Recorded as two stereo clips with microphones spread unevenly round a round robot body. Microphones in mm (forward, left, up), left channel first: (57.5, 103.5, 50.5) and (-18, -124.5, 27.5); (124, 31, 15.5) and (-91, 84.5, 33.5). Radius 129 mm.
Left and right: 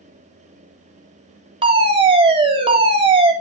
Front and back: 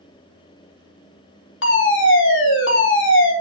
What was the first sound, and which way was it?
A fire alarm, 45° right.